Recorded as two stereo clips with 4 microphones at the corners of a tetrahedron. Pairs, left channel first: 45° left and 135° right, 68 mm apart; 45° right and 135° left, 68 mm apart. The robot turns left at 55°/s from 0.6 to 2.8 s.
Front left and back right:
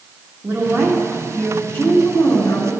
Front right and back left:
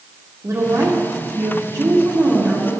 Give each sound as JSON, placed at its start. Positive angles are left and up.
{"t": 0.4, "sound": "a woman speaking", "azimuth_deg": 175, "distance_m": 1.6}